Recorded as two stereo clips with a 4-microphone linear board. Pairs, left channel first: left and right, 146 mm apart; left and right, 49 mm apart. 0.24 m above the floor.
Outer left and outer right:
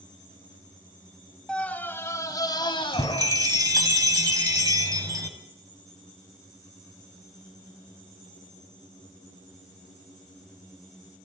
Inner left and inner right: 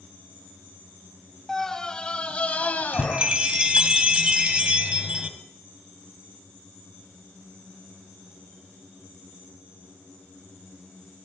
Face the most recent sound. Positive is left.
turn(degrees=-25)  # may be behind; listen again after turning